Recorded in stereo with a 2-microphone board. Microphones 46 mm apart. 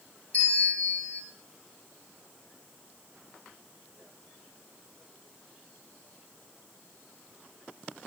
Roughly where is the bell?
Left.